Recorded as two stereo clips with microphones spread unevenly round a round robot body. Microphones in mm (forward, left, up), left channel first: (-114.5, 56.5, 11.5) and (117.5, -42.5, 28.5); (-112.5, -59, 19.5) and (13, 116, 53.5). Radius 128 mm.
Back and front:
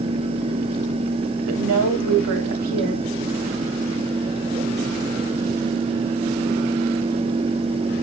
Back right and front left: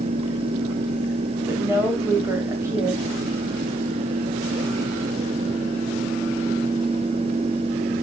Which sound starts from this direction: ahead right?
A woman speaking, at 1.5 s.